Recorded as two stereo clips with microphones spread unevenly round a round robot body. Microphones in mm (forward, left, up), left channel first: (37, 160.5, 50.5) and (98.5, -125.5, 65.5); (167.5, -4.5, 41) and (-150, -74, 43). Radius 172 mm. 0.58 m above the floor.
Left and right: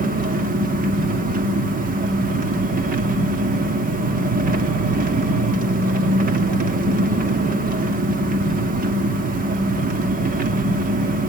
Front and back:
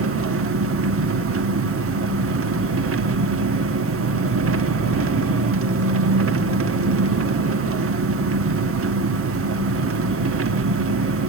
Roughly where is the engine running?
Behind right.